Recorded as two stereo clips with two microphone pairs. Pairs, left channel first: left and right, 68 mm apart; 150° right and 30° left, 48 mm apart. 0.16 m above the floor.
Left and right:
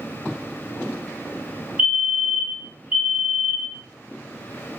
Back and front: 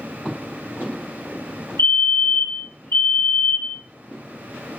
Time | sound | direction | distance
1.8 | a fire alarm | 155° right | 5.5 m